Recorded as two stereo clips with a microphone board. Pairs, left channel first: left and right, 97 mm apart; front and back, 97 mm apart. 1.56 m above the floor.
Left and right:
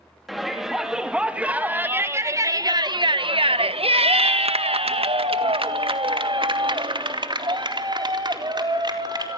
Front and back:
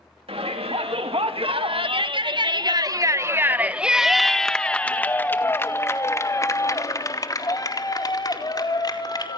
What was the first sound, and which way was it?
A shout, straight behind.